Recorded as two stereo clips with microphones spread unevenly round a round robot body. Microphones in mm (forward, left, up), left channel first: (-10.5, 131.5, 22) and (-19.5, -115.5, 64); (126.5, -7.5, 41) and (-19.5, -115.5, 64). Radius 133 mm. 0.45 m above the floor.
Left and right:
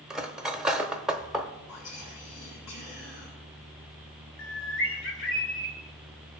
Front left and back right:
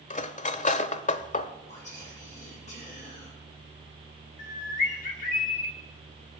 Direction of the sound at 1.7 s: 95° left.